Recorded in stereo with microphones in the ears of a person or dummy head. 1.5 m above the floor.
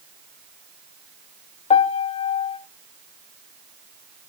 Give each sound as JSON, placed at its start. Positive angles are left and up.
{"t": 1.7, "sound": "a piano", "side_deg": 35, "distance_m": 0.8}